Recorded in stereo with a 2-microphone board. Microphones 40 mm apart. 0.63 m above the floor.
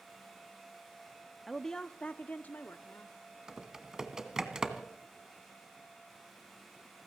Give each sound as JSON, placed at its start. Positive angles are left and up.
{"t": 1.5, "sound": "a woman speaking", "side_deg": 0, "distance_m": 0.5}
{"t": 3.5, "sound": "typing on a keyboard", "side_deg": -15, "distance_m": 1.5}